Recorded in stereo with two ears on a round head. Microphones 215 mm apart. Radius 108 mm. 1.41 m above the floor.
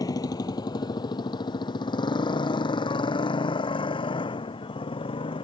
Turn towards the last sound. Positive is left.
turn(degrees=20)  # may be behind; listen again after turning